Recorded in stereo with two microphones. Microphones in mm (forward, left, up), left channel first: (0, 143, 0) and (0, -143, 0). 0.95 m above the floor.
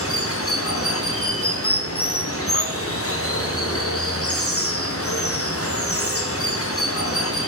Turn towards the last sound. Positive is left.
turn(degrees=50)  # may be behind; listen again after turning